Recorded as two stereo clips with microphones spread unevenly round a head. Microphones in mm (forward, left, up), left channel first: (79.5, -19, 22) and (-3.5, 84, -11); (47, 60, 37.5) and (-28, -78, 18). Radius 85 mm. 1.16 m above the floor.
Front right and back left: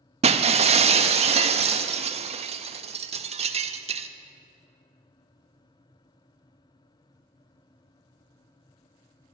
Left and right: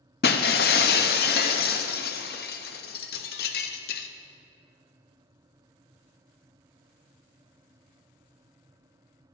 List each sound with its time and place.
0.2 s breaking glass: 85° left, 0.7 m